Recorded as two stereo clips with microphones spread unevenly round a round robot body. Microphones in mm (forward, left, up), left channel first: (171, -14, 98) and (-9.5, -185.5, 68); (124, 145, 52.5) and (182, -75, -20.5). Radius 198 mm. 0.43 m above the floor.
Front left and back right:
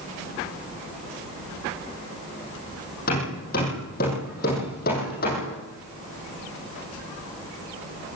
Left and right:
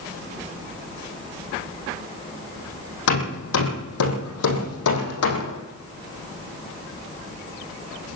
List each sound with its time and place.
3.1 s hammering: 110° left, 5 m